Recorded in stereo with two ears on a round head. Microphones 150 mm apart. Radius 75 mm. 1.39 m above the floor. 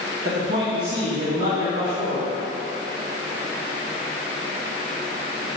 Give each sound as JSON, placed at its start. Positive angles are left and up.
{"t": 0.2, "sound": "a man speaking", "side_deg": -70, "distance_m": 1.2}